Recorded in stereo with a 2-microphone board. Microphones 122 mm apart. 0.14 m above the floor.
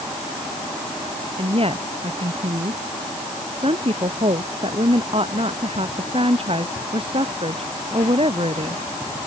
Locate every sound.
1.4 s a woman speaking: 50° right (ahead or behind)